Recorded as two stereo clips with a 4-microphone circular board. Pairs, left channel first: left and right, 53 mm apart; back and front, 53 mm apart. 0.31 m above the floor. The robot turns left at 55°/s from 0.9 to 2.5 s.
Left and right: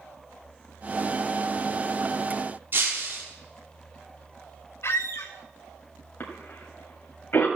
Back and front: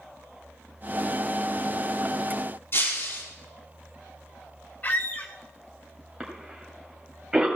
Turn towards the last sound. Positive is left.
turn(degrees=80)